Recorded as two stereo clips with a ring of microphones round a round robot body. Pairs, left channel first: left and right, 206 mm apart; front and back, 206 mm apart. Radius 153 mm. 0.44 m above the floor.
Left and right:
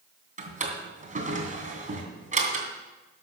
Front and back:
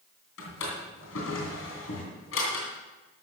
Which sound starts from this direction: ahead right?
A drawer, at 0.4 s.